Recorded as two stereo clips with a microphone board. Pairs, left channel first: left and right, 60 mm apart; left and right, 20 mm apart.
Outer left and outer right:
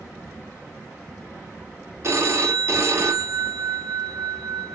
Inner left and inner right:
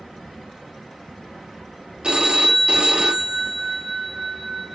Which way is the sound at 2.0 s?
50° right (ahead or behind).